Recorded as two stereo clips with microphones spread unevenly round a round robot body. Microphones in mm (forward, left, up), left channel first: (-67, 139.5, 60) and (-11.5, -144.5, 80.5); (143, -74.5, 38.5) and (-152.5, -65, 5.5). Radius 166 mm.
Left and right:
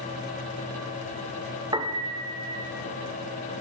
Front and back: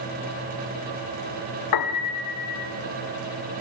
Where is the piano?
Straight ahead, 1.7 m.